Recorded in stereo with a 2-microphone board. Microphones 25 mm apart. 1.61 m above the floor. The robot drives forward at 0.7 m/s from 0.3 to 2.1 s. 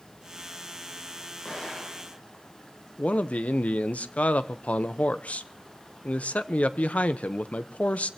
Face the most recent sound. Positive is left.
turn(degrees=80)